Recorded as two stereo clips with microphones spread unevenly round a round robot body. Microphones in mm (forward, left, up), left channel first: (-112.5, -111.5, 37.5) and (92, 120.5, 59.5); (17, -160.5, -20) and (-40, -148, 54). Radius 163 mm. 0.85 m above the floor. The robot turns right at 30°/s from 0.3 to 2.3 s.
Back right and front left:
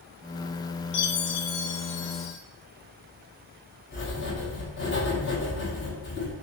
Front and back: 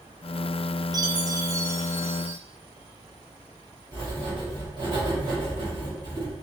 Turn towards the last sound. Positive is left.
turn(degrees=180)